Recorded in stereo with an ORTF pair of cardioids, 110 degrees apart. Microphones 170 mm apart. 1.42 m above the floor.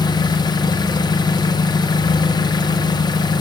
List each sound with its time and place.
0.0 s an engine running: 25° left, 0.7 m